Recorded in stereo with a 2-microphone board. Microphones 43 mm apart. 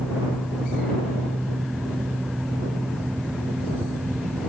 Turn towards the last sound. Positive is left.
No sound to turn to.